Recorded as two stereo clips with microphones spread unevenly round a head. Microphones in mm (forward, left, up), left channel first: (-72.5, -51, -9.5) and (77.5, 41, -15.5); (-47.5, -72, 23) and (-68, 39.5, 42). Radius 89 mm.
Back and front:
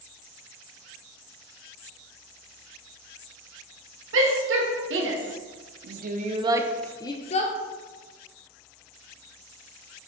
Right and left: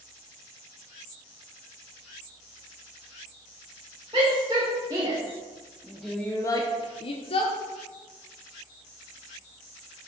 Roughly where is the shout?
Ahead left.